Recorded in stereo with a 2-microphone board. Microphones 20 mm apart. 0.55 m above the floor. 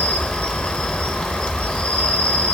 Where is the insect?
65° left (ahead or behind), 1.9 m.